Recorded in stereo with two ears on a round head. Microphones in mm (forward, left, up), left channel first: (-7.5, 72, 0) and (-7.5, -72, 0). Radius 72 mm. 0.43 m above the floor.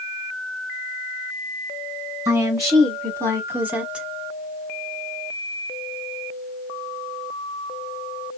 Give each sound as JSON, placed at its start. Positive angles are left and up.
{"t": 2.2, "sound": "a woman speaking", "side_deg": -20, "distance_m": 1.7}